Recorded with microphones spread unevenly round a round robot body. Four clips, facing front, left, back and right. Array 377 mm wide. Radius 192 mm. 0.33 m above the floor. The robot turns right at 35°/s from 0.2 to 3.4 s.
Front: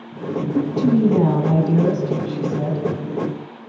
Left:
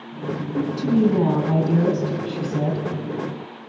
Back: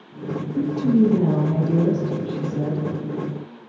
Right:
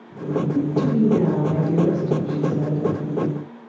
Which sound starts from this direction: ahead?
A woman speaking, at 0.6 s.